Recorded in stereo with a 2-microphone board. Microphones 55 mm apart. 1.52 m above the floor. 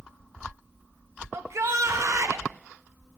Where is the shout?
55° right (ahead or behind), 1.5 m; by 2.5 s 65° right (ahead or behind), 2 m.